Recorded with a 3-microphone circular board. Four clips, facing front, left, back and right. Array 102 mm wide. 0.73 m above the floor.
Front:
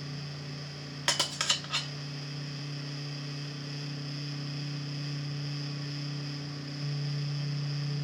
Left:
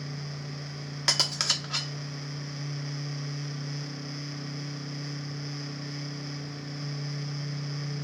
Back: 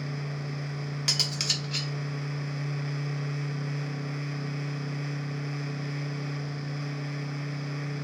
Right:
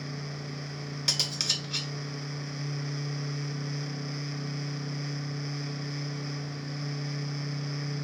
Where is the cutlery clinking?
65° left, 0.6 m.